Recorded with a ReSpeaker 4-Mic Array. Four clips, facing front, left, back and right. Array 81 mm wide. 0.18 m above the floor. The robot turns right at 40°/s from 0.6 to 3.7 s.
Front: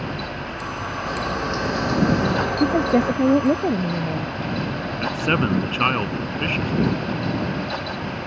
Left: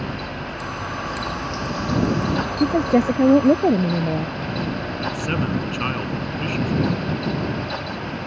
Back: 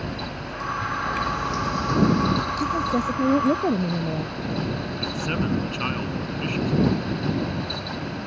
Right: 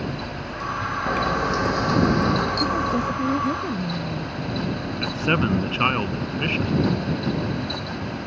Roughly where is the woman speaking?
Ahead left.